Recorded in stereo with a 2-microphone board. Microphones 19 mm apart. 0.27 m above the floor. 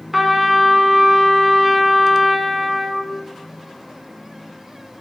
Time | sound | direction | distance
0.1 | a trumpet | 20° right (ahead or behind) | 0.9 m